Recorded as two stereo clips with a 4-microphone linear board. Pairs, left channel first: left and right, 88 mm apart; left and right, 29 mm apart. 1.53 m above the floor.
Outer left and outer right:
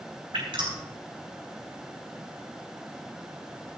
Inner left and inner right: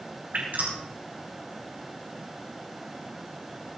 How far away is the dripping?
About 5 m.